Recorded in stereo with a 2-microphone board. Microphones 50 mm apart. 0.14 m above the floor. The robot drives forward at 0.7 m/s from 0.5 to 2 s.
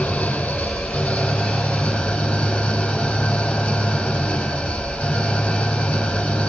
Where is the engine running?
20° left (ahead or behind), 4 m; by 6.5 s 15° left (ahead or behind), 5 m.